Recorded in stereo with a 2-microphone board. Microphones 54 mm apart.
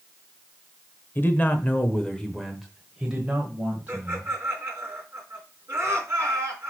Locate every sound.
1.1 s a man speaking: 40° left (ahead or behind), 1.0 m; by 4.3 s 25° right (ahead or behind), 1.8 m
3.9 s laughter: 40° right (ahead or behind), 3.5 m